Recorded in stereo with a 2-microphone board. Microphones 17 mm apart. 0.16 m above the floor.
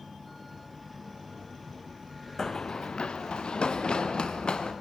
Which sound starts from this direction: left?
Running footsteps, at 2.4 s.